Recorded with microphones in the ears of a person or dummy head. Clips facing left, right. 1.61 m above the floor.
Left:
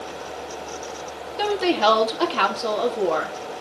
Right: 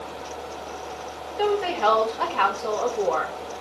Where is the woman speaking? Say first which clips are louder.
Left 2 dB; 55° left (ahead or behind), 3.5 m.